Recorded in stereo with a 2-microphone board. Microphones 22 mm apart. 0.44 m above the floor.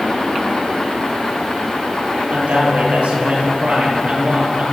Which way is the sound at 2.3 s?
55° right (ahead or behind).